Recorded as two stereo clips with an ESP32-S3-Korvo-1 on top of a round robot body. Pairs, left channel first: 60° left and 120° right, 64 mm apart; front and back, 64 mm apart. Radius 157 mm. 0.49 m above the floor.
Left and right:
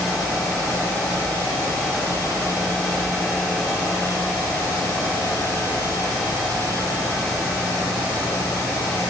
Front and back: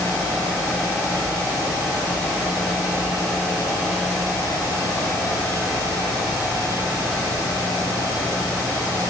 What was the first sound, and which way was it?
Only background noise.